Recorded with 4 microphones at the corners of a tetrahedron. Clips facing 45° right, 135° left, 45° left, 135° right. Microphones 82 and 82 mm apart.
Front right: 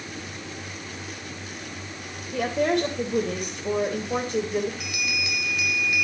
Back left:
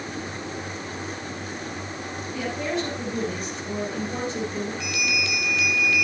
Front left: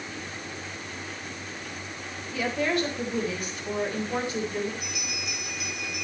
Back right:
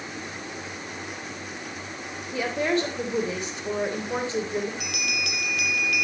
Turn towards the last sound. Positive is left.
turn(degrees=-120)